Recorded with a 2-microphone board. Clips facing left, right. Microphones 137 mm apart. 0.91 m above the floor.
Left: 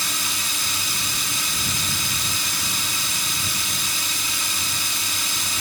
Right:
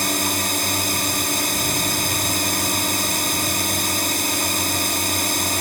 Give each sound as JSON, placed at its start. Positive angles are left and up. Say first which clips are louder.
{"t": 0.0, "sound": "a drone", "louder": "right 9 dB", "side_deg": -60}